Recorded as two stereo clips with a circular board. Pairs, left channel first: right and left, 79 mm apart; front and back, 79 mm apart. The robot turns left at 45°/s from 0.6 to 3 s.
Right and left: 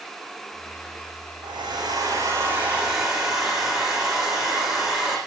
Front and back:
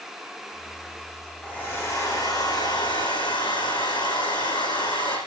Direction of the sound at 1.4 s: 75° left.